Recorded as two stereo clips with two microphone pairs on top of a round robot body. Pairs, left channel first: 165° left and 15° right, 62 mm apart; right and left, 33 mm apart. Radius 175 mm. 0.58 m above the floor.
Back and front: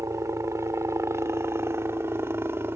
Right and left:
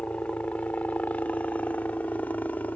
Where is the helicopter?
45° right; by 2.8 s 65° right.